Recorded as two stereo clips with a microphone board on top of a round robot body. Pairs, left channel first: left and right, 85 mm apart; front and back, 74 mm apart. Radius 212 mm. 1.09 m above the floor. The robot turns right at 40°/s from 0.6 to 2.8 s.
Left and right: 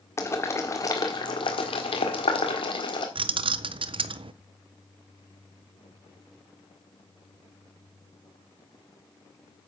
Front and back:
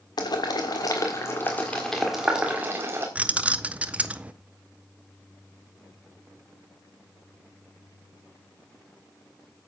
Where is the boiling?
30° left, 1.5 m; by 3.0 s 120° left, 1.5 m.